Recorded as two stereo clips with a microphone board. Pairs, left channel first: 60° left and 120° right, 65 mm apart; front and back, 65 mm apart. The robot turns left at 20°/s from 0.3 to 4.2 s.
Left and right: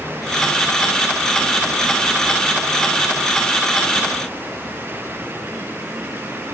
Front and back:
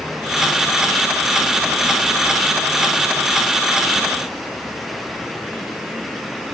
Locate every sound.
Only background noise.